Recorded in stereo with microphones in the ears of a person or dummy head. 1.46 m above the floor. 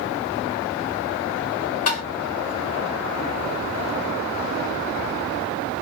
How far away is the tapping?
About 1.5 m.